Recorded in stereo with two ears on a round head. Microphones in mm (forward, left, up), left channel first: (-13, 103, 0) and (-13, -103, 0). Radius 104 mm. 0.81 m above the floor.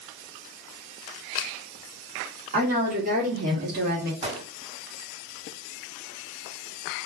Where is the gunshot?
30° right (ahead or behind), 1.8 m.